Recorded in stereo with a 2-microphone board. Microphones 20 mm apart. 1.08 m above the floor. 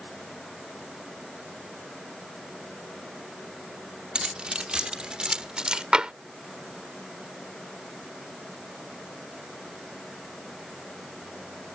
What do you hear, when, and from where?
4.2 s keys jangling: 60° right (ahead or behind); by 5.8 s 45° right (ahead or behind)
5.9 s tapping: 55° right (ahead or behind)